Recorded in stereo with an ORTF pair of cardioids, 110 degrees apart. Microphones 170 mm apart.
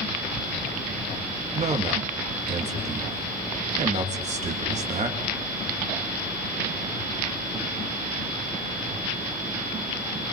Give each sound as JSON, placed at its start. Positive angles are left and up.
{"t": 1.6, "sound": "a man speaking", "azimuth_deg": -45, "distance_m": 3.5}